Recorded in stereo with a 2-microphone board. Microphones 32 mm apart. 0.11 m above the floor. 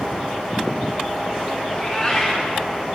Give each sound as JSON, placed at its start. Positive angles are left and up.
{"t": 1.7, "sound": "a cat meowing", "side_deg": 10, "distance_m": 3.0}